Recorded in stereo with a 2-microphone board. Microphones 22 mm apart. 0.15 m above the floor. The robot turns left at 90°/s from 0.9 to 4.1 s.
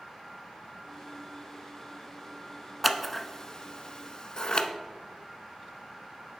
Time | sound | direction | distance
2.8 | scissors | 5° right (ahead or behind) | 0.5 m